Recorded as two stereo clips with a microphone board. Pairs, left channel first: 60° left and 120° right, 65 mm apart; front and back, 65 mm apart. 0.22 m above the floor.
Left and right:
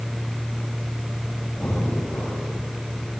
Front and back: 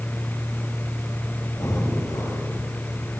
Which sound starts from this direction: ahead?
Breathing, at 1.6 s.